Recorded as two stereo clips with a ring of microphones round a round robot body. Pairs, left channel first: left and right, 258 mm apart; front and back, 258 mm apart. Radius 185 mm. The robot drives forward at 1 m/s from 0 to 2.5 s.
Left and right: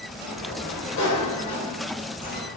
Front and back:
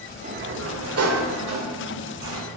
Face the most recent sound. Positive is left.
turn(degrees=165)